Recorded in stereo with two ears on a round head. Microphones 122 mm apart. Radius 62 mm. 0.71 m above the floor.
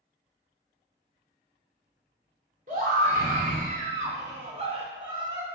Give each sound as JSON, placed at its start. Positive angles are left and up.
{"t": 2.7, "sound": "a scream", "side_deg": -65, "distance_m": 2.0}